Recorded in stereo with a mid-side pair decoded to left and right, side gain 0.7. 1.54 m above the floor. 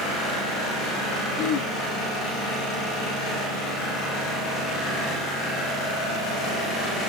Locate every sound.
1.4 s throat clearing: 70° left, 3 m